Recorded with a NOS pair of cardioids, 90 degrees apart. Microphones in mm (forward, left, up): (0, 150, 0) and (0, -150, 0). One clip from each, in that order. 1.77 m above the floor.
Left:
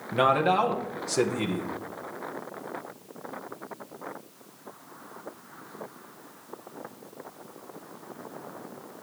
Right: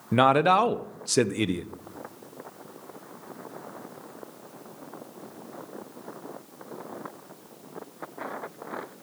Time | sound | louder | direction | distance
0.1 | a man speaking | right 3 dB | 55° right | 0.6 m